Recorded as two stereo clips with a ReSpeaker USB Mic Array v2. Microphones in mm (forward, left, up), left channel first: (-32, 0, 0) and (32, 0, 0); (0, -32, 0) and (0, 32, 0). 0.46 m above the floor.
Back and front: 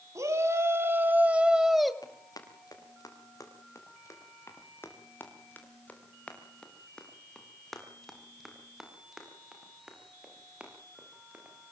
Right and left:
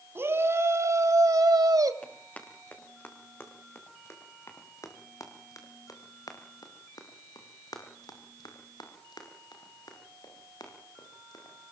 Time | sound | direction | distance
0.1 | a shout | 40° left | 3 m
2.0 | running footsteps | 155° right | 7 m